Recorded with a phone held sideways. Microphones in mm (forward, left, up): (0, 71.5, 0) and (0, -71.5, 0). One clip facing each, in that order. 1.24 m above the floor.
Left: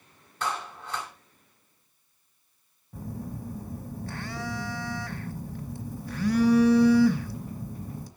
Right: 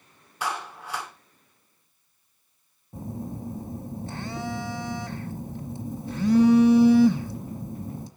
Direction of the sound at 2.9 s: 20° right (ahead or behind).